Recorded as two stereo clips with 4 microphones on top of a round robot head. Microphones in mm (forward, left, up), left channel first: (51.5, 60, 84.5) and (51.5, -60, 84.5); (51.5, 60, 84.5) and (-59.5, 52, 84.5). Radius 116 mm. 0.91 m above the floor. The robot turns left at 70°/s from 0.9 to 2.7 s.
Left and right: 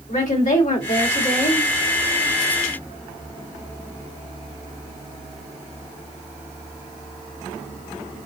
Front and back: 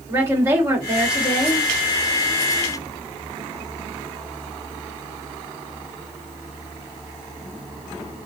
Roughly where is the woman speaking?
Behind left.